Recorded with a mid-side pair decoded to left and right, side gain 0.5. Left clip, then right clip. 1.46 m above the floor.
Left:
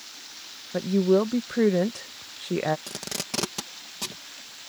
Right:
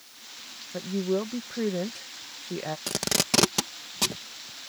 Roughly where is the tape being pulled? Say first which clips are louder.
Right 7 dB; ahead right.